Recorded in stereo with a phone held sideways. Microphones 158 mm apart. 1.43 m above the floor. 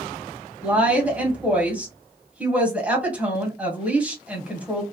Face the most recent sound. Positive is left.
turn(degrees=-10)  # may be behind; listen again after turning